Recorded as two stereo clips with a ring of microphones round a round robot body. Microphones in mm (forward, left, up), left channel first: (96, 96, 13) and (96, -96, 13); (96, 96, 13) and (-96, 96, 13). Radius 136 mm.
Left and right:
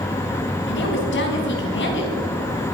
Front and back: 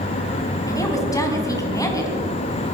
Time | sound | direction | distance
0.7 | a woman speaking | 70° left | 4 m